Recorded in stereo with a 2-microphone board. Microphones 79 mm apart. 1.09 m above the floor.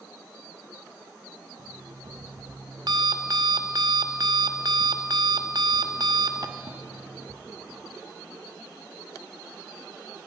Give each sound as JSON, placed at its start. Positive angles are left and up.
{"t": 1.6, "sound": "an alarm clock", "side_deg": -60, "distance_m": 0.8}